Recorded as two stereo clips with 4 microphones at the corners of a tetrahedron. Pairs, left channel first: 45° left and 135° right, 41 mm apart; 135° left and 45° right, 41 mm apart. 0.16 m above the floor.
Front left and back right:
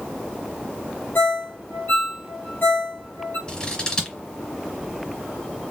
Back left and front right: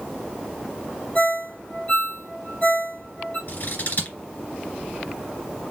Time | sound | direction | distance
1.1 | a ringtone | 75° left | 3 m
3.5 | scissors | 105° left | 2 m